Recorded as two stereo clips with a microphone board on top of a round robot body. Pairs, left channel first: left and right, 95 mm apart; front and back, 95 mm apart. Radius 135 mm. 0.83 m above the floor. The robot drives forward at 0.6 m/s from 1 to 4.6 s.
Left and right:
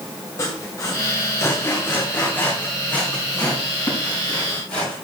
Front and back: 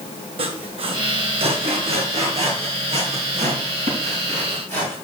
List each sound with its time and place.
0.4 s sawing: 150° left, 1.6 m; by 5.0 s 170° left, 3.5 m